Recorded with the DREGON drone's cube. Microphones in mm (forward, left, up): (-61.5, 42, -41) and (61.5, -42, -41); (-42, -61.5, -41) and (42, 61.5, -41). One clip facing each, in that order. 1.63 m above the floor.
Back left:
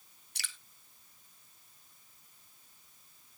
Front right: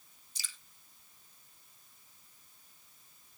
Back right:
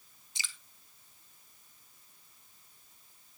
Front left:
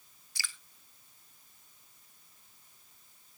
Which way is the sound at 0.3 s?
165° left.